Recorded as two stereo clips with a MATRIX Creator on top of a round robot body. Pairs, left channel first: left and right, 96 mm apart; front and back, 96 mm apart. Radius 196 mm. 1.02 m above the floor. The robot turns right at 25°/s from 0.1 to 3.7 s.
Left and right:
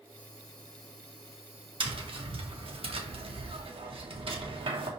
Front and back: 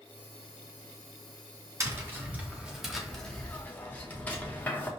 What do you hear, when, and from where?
1.8 s tapping: 120° right, 1.6 m; by 4.9 s 75° right, 1.6 m